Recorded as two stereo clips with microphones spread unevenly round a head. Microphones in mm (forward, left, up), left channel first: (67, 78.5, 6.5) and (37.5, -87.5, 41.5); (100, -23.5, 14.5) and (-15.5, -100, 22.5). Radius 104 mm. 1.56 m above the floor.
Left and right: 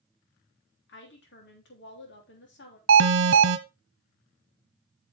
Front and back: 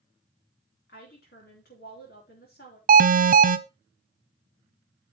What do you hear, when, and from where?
0.9 s a woman speaking: 70° left, 3 m
2.9 s an alarm: 130° right, 1.1 m